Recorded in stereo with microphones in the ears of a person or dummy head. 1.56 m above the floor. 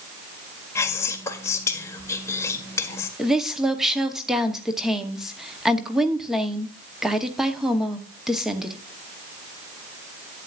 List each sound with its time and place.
0.8 s whispering: 15° left (ahead or behind), 1.4 m
3.2 s a woman speaking: 5° right (ahead or behind), 0.9 m